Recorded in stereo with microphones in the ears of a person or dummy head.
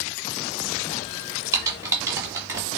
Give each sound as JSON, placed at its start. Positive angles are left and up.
{"t": 1.5, "sound": "typing on a keyboard", "side_deg": -15, "distance_m": 2.0}